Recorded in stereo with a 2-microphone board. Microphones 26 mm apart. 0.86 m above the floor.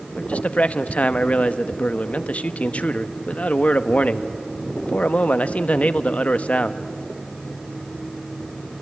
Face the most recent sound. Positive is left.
turn(degrees=60)  # may be behind; listen again after turning